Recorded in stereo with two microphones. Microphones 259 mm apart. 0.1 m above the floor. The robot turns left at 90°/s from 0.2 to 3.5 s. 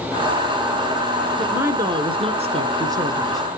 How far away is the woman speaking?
About 1.1 m.